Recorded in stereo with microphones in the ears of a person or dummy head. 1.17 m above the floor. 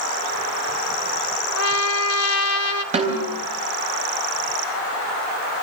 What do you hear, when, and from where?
1.6 s a trumpet: 80° left, 1.8 m
2.9 s a snare drum: 40° right (ahead or behind), 4 m